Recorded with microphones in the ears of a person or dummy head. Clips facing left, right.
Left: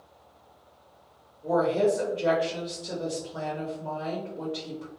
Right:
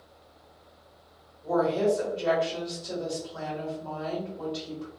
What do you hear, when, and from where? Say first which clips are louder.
1.4 s a woman speaking: left 1 dB; 35° left (ahead or behind), 1.2 m